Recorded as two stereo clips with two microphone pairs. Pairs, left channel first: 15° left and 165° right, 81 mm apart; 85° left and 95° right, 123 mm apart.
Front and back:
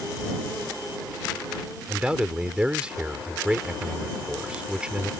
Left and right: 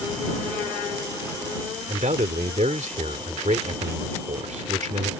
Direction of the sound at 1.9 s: 90° right.